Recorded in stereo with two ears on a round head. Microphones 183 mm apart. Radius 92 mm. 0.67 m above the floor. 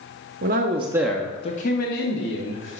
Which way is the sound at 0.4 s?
50° right (ahead or behind).